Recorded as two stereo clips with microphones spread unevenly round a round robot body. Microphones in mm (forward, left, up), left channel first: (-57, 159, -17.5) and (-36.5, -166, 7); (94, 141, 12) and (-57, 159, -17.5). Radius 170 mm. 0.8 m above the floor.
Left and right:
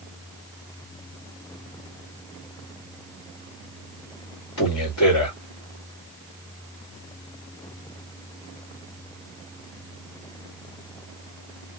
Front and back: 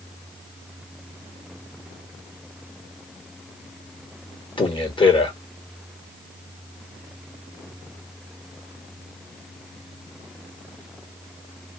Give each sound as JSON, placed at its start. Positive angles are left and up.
{"t": 4.6, "sound": "a man speaking", "azimuth_deg": 55, "distance_m": 2.0}